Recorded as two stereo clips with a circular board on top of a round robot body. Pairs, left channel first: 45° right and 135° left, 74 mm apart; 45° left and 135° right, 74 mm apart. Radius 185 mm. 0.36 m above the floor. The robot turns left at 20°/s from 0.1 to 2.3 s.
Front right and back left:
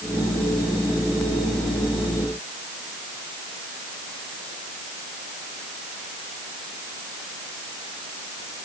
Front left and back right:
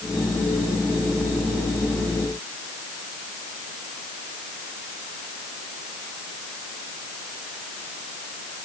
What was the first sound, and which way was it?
Only background noise.